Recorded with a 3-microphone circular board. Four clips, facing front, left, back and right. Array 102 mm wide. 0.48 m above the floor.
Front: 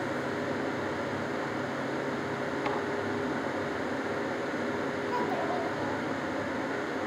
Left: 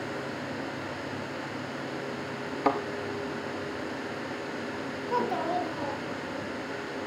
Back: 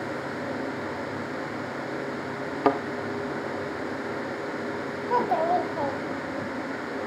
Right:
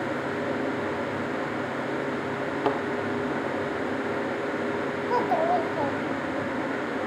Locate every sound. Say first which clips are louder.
2.6 s a thud: left 1 dB, back 11 dB; 165° right, 1.3 m
5.1 s a child speaking: right 5 dB, back 10 dB; 135° right, 1.7 m